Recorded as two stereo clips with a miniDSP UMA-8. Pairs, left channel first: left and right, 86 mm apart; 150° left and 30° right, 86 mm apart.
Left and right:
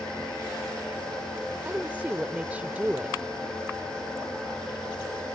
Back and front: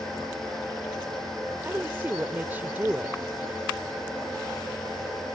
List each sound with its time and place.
1.6 s a woman speaking: 50° right